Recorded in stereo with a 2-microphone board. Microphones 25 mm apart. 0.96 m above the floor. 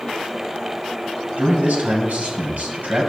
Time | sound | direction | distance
1.4 | a man speaking | 70° right (ahead or behind) | 6.5 m